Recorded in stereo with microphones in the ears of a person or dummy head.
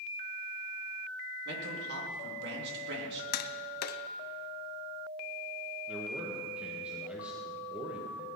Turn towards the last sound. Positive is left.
turn(degrees=-5)  # may be behind; listen again after turning